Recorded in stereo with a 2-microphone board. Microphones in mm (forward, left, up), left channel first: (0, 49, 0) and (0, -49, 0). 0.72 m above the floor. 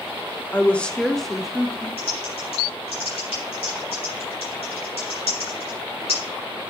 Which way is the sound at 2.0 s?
90° left.